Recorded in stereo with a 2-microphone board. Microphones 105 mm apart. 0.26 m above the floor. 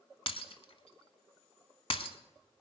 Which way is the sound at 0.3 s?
65° left (ahead or behind).